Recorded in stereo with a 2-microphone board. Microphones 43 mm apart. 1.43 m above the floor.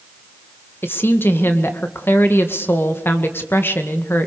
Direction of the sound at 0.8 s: 60° left (ahead or behind).